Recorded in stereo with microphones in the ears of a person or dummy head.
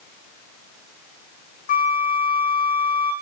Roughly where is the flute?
Left.